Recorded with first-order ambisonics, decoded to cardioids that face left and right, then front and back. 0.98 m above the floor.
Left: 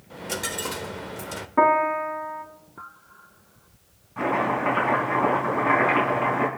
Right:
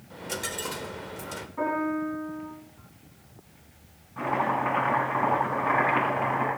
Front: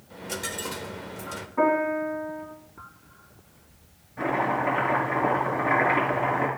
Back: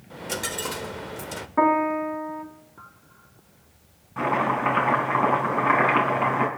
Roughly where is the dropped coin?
Behind left.